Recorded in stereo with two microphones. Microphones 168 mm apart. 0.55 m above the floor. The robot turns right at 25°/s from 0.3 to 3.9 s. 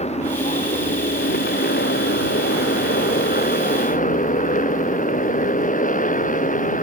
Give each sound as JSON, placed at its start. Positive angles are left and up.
{"t": 0.0, "sound": "a motorcycle", "azimuth_deg": 40}